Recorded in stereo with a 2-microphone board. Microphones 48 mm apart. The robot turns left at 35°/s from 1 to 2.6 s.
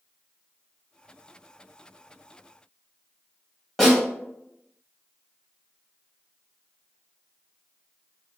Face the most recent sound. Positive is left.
turn(degrees=5)  # may be behind; listen again after turning